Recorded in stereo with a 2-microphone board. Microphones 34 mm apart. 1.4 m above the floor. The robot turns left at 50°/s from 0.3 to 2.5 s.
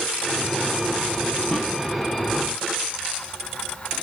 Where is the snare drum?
10° left (ahead or behind), 1.1 m; by 1.7 s 20° left (ahead or behind), 1.1 m.